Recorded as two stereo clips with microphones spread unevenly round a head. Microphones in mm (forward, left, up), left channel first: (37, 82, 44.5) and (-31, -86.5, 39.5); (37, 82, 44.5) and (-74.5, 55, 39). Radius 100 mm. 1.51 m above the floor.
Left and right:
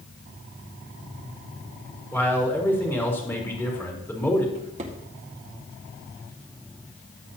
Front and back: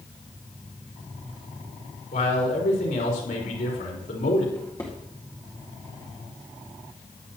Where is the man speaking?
10° right, 4 m.